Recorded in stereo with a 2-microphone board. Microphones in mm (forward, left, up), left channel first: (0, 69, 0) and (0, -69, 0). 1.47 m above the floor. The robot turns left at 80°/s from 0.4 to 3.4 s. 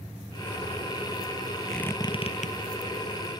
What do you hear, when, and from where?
1.7 s a squeak: centre (ahead or behind); by 2.5 s 70° left (ahead or behind)